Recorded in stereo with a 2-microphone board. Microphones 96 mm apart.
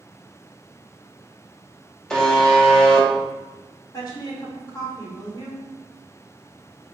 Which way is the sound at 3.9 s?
45° left (ahead or behind).